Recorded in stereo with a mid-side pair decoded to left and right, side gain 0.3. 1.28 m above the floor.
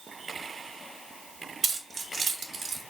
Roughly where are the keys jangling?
Right.